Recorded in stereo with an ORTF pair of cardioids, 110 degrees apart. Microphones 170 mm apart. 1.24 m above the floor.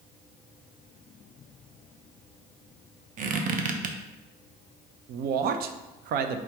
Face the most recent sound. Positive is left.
turn(degrees=-70)